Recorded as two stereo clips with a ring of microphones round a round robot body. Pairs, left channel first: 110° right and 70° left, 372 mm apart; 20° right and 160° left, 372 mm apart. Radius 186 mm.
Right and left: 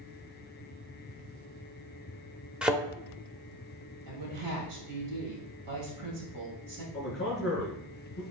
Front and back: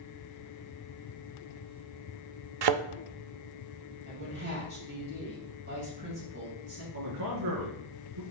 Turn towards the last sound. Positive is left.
turn(degrees=-175)